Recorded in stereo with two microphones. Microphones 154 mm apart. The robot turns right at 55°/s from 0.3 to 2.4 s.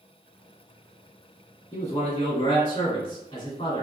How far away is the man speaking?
About 1.2 m.